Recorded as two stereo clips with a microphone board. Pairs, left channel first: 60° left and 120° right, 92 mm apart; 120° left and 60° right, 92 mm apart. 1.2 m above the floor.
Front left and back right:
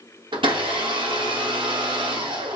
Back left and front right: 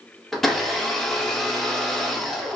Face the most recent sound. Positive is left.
turn(degrees=-155)